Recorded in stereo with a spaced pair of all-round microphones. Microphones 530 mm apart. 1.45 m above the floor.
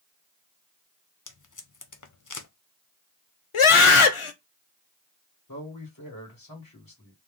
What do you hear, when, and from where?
1.3 s tape being pulled: 35° left (ahead or behind), 0.5 m
3.5 s a scream: 65° left (ahead or behind), 0.7 m
5.5 s a man speaking: 40° left (ahead or behind), 1.7 m